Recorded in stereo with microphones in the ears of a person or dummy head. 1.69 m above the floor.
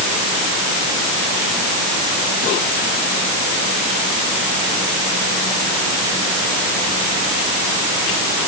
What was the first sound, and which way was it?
Only background noise.